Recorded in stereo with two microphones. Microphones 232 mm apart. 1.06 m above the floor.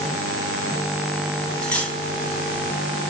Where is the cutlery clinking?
5° left (ahead or behind), 1.2 m.